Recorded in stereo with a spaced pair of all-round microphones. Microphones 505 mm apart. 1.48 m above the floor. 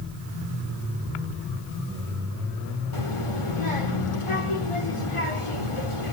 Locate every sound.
2.9 s a child speaking: 80° left, 3.5 m